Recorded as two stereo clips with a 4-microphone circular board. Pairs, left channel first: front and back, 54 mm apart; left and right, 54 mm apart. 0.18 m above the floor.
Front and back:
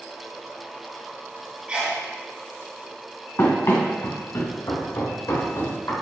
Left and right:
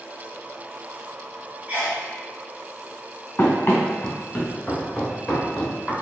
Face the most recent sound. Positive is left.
turn(degrees=5)